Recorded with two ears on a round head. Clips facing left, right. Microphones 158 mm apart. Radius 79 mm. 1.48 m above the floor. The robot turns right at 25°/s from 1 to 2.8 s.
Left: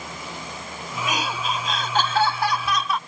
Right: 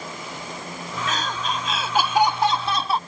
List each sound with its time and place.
1.1 s laughter: 165° left; by 3.0 s 150° right